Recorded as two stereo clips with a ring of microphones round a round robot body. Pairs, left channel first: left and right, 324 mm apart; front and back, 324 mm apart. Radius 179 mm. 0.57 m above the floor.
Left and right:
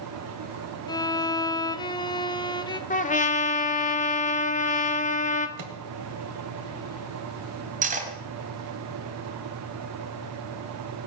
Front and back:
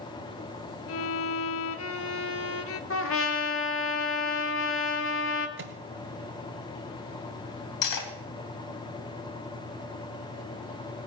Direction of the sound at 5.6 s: 125° right.